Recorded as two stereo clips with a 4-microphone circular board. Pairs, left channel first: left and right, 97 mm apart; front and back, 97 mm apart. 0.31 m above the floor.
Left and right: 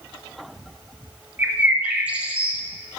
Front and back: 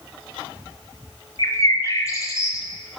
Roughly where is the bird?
Ahead right.